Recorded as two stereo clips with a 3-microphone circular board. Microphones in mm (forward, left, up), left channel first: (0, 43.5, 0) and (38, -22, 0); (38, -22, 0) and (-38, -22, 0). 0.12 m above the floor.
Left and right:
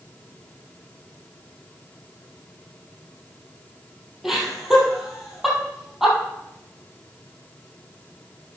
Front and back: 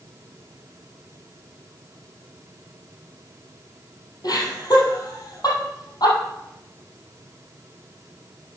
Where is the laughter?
25° left, 3.5 m.